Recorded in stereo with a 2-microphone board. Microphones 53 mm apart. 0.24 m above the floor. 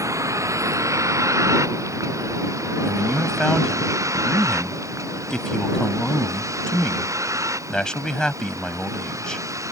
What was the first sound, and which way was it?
A vehicle, 70° right (ahead or behind).